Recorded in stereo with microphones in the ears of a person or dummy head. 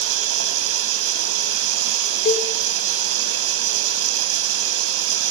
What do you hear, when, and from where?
0.0 s running water: 70° right (ahead or behind), 5 m
2.2 s a cowbell: 50° left (ahead or behind), 4 m